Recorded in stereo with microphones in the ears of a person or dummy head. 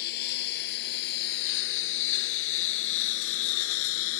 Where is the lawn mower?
60° left (ahead or behind); by 4.2 s 80° left.